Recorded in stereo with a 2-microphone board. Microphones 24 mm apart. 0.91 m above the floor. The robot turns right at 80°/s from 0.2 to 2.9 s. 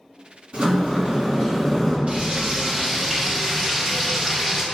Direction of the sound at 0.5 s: 105° right.